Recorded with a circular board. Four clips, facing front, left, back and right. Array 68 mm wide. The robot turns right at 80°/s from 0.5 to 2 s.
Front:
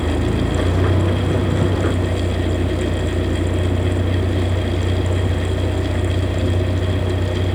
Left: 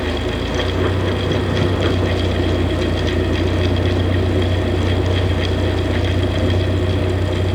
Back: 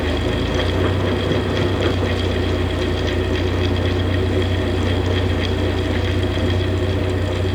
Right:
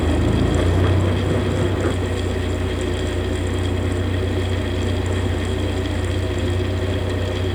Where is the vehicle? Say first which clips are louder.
Right 1 dB, even; 55° right; by 7.5 s 65° left.